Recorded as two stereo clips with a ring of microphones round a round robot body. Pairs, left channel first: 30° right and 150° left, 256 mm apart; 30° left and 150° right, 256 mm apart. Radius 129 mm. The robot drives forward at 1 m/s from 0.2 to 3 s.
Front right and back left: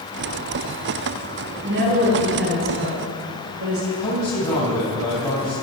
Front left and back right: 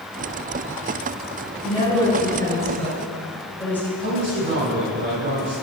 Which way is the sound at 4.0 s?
105° right.